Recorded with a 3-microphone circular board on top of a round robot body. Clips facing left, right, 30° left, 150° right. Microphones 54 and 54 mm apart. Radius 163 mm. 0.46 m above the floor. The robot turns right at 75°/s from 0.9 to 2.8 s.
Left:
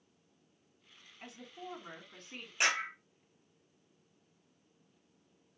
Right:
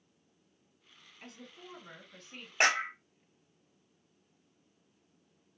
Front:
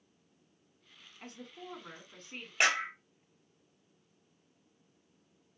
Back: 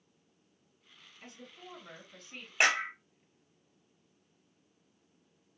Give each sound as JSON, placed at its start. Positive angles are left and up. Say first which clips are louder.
{"t": 1.2, "sound": "a woman speaking", "louder": "left 3 dB, front 3 dB", "azimuth_deg": 10, "distance_m": 2.0}
{"t": 2.6, "sound": "a clap", "louder": "right 4 dB, back 1 dB", "azimuth_deg": -70, "distance_m": 1.5}